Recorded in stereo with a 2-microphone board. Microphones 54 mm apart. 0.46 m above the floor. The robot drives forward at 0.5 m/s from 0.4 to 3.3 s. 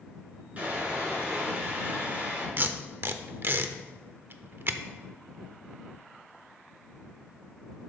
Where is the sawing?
30° right (ahead or behind), 4 m; by 2.5 s 35° right (ahead or behind), 3.5 m.